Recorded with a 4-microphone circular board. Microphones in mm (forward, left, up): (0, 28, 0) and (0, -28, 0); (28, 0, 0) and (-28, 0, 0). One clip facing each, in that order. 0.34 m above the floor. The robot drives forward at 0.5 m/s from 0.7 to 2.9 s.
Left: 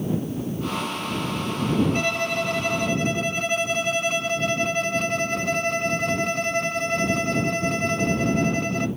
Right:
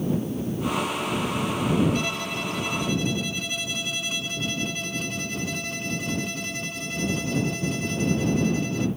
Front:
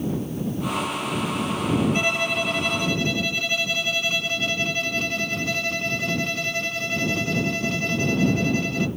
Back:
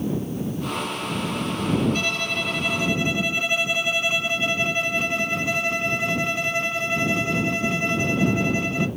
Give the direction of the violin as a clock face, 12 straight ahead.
10 o'clock.